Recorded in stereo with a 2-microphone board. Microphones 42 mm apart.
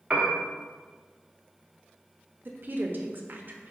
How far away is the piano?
About 0.9 m.